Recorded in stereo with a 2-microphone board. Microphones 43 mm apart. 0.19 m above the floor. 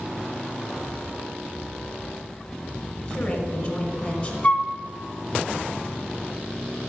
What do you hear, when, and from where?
3.0 s a woman speaking: 10° left (ahead or behind), 1.5 m
4.4 s a flute: 35° left (ahead or behind), 0.7 m